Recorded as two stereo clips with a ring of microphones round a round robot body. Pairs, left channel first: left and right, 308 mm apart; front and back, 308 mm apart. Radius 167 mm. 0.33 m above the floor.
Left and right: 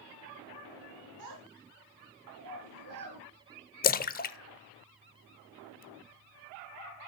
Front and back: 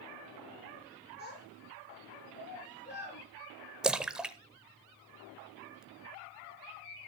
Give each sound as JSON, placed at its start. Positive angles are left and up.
{"t": 1.2, "sound": "a child speaking", "azimuth_deg": -55, "distance_m": 3.5}
{"t": 3.8, "sound": "a splash", "azimuth_deg": 95, "distance_m": 0.6}